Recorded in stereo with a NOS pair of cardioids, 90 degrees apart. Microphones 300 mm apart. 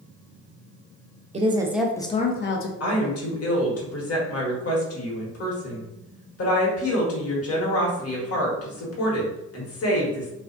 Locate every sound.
1.3 s a woman speaking: 25° right, 0.7 m; by 2.7 s 50° left, 0.6 m
2.8 s a woman speaking: 50° left, 1.2 m